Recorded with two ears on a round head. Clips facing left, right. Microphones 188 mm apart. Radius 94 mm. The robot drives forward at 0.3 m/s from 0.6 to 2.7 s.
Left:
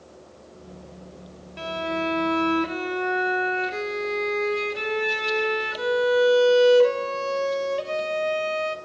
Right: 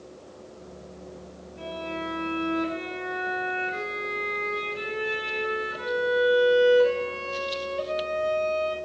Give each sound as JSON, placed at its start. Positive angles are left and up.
{"t": 1.6, "sound": "a violin", "side_deg": 80, "distance_m": 0.6}